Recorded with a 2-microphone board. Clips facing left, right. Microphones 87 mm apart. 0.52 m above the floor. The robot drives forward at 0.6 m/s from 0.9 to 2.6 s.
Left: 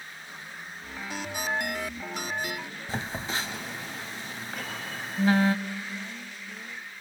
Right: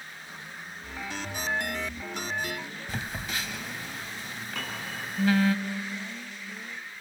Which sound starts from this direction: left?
A phone buzzing, at 2.9 s.